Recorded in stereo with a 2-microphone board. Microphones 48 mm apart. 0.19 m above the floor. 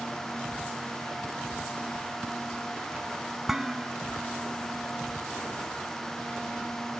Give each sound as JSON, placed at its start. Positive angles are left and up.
{"t": 3.5, "sound": "dishes clattering", "side_deg": -10}